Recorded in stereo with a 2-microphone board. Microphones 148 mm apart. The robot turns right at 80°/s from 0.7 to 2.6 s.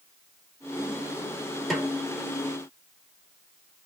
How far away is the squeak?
No squeak in this recording.